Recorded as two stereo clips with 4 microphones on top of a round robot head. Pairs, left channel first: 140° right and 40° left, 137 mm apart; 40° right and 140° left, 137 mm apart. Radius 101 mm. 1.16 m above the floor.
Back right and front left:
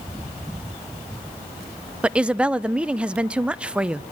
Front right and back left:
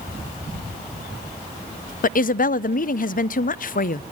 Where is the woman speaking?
45° right, 0.6 m.